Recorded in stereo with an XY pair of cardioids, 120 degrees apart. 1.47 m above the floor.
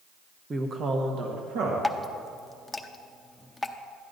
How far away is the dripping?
About 0.6 m.